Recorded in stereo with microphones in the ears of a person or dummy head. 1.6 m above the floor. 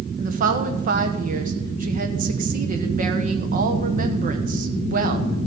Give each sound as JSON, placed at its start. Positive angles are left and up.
{"t": 0.2, "sound": "a woman speaking", "side_deg": -50, "distance_m": 1.4}